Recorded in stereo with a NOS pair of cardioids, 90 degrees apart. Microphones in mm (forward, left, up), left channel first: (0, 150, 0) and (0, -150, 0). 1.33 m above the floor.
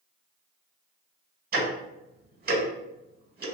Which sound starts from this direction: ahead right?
Ticking, at 1.5 s.